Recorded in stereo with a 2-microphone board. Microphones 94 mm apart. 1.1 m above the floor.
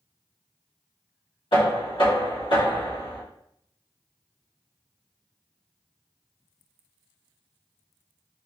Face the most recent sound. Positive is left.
turn(degrees=75)  # may be behind; listen again after turning